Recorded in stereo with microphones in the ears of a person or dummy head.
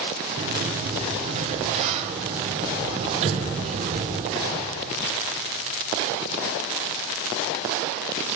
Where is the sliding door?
35° right (ahead or behind), 0.6 m.